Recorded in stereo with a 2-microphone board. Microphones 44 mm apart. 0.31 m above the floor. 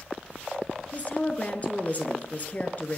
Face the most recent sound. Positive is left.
turn(degrees=35)  # may be behind; listen again after turning